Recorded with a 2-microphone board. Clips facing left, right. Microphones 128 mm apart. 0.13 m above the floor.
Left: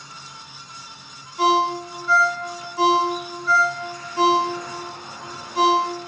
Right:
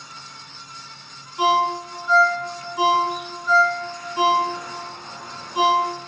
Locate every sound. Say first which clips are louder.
1.4 s a ringtone: even; 20° right (ahead or behind), 0.8 m